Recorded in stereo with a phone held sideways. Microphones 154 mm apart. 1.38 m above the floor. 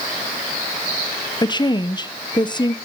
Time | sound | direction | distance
1.4 | a woman speaking | 30° left (ahead or behind) | 0.9 m